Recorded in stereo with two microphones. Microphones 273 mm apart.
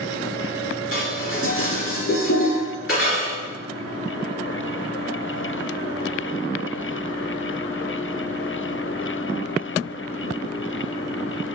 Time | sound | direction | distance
0.9 | dishes clattering | 50° left (ahead or behind) | 1.9 m